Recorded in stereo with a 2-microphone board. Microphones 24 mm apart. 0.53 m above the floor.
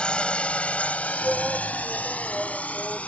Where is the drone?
40° left (ahead or behind); by 3.1 s 65° left (ahead or behind).